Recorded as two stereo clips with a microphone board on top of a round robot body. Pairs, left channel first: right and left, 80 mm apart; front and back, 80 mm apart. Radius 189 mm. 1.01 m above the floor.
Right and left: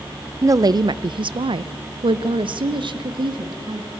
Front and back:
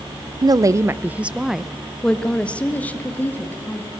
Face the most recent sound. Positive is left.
turn(degrees=65)